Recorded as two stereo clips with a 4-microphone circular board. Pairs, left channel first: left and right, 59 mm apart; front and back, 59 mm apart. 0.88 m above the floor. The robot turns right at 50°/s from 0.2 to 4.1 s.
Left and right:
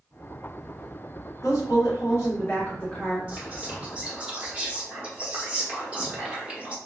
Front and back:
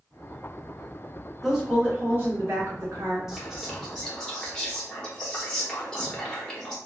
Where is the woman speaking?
90° left, 1.9 m; by 3.2 s straight behind, 1.9 m.